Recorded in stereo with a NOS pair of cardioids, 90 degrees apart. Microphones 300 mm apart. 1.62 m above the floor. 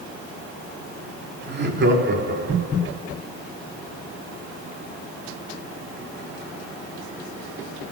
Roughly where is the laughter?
Ahead right.